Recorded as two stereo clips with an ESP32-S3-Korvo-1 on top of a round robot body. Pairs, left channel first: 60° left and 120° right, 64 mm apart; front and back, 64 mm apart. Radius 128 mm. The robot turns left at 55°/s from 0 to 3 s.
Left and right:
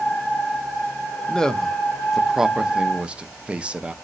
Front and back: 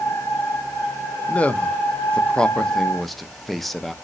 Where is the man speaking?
10° left, 0.6 m; by 3.9 s 85° right, 0.6 m.